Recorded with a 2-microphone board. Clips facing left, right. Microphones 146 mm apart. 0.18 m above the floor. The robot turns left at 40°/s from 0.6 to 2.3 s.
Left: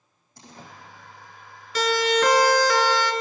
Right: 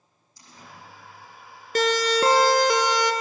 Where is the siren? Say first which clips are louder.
Even; 50° right (ahead or behind), 2.5 m; by 3.1 s 15° right (ahead or behind), 2.5 m.